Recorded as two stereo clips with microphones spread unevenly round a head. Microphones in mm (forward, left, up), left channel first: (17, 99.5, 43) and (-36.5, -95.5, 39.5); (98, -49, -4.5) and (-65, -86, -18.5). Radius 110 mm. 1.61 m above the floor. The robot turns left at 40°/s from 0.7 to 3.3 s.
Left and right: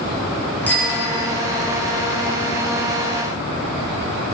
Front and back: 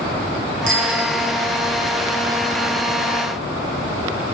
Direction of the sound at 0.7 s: 155° left.